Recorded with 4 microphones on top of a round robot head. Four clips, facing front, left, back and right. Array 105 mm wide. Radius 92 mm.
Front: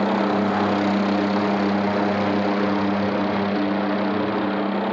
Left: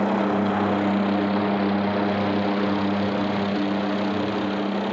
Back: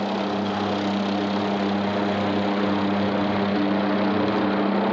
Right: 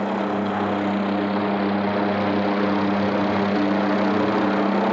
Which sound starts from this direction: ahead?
A helicopter, at 0.0 s.